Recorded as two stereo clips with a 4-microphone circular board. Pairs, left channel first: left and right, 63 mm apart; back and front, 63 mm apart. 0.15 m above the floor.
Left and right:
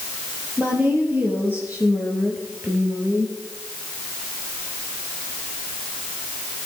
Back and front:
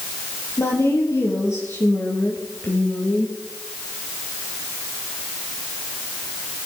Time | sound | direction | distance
0.6 | a woman speaking | 150° right | 4 m